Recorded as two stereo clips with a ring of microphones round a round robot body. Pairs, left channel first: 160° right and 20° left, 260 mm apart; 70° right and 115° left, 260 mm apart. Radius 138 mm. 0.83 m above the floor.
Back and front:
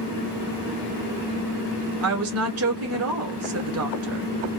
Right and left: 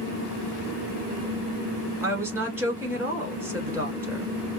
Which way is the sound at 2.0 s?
35° left.